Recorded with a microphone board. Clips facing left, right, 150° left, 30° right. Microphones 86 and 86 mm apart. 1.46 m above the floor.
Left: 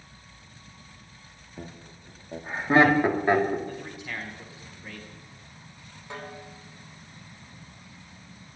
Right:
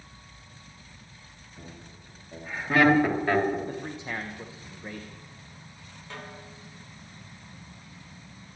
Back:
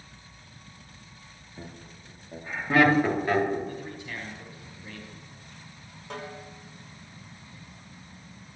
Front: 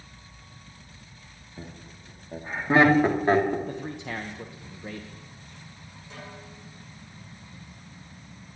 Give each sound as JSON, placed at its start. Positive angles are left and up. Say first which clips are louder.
{"t": 1.6, "sound": "laughter", "louder": "left 4 dB, front 1 dB", "azimuth_deg": 55, "distance_m": 3.0}
{"t": 3.7, "sound": "a man speaking", "louder": "right 2 dB, front 3 dB", "azimuth_deg": -30, "distance_m": 1.5}
{"t": 6.1, "sound": "a snare drum", "louder": "left 3 dB, back 5 dB", "azimuth_deg": 160, "distance_m": 5.0}